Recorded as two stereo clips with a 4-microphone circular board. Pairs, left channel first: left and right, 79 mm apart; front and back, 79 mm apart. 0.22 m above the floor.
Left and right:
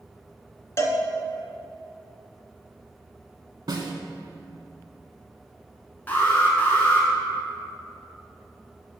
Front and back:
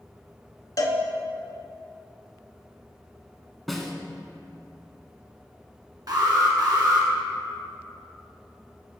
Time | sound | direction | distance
0.8 | a cowbell | 40° left | 0.7 m
3.7 | a snare drum | 90° right | 0.8 m
6.1 | an alarm | 155° left | 1.6 m